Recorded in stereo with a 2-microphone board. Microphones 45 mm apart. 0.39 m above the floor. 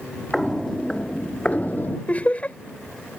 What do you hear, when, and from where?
0.3 s footsteps: 5° left (ahead or behind); by 2.0 s 50° left (ahead or behind)
2.1 s laughter: 35° left (ahead or behind)